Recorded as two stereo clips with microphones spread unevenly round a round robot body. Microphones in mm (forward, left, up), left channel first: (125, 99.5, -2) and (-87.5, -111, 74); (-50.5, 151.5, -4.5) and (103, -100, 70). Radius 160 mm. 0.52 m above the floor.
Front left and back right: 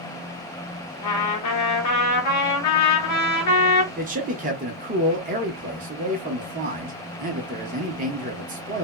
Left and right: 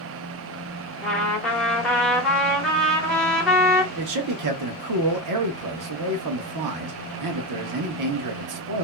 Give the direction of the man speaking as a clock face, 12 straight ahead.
2 o'clock.